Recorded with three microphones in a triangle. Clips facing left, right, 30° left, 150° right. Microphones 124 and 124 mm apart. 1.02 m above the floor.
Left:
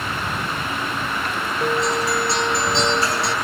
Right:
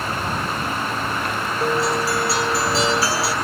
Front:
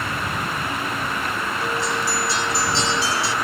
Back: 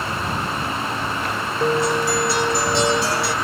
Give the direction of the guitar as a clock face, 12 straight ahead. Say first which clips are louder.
Even, back 8 dB; 6 o'clock.